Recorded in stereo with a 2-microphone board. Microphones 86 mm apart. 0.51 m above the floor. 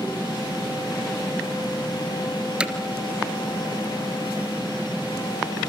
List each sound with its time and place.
2.6 s hammering: 10° right (ahead or behind), 2.5 m